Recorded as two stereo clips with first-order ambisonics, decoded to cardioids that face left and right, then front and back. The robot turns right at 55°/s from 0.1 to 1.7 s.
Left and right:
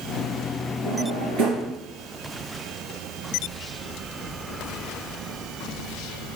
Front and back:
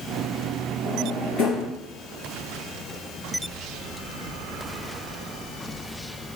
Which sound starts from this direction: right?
A drawer, at 0.8 s.